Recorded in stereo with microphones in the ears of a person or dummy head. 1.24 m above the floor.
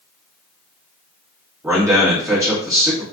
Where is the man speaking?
10° right (ahead or behind), 1.5 m.